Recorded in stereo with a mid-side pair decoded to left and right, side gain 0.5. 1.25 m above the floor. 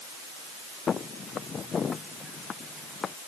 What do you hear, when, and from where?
0.9 s footsteps: 40° left